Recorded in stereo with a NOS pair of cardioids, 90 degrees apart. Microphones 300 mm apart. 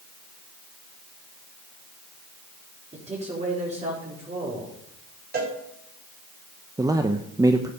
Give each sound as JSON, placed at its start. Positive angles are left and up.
{"t": 2.9, "sound": "a man speaking", "azimuth_deg": -20, "distance_m": 4.5}
{"t": 5.3, "sound": "a cowbell", "azimuth_deg": -30, "distance_m": 4.5}
{"t": 6.8, "sound": "a man speaking", "azimuth_deg": -10, "distance_m": 0.9}